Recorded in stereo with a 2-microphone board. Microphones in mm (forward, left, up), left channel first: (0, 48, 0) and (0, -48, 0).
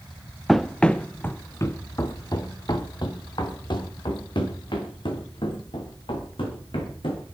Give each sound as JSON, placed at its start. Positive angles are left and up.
{"t": 0.5, "sound": "running footsteps", "side_deg": 0, "distance_m": 1.1}